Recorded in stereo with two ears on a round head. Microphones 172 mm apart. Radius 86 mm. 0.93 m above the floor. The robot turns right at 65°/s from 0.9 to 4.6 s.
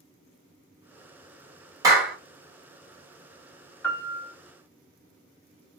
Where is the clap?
20° right (ahead or behind), 1.0 m; by 2.2 s centre (ahead or behind), 1.0 m.